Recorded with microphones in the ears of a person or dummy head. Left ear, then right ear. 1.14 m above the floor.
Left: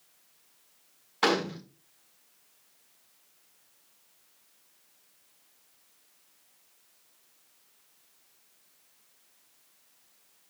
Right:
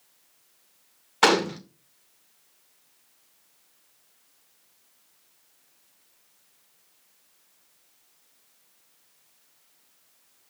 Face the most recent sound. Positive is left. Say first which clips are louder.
# right 6 dB
turn(degrees=-20)  # may be behind; listen again after turning